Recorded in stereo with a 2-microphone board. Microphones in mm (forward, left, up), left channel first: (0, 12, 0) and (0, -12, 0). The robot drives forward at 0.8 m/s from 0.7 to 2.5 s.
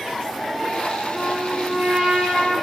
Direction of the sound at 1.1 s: 65° right (ahead or behind).